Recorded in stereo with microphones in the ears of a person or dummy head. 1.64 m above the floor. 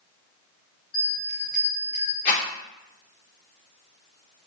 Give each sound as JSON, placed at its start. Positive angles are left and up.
{"t": 0.9, "sound": "a bell", "side_deg": 45, "distance_m": 1.8}
{"t": 2.2, "sound": "a rattle", "side_deg": 45, "distance_m": 2.5}